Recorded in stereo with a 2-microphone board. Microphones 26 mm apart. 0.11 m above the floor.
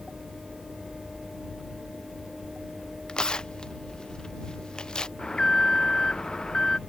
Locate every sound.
3.1 s tearing paper: 30° left (ahead or behind)
5.2 s an alarm: 25° left (ahead or behind)